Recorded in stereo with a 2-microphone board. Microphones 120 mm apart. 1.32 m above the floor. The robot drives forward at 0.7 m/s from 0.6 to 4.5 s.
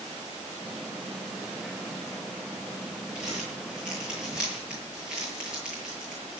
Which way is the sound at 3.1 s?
5° right (ahead or behind).